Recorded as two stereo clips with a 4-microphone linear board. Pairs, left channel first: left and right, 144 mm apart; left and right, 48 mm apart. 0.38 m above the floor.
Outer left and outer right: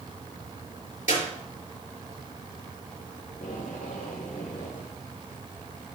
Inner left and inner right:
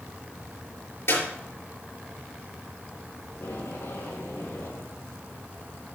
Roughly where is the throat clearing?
No throat clearing in this recording.